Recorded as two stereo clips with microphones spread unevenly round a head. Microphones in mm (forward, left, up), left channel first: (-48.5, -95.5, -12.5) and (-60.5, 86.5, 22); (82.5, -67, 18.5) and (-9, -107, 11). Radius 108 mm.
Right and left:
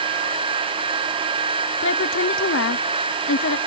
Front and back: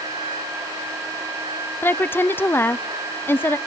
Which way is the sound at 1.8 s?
50° right.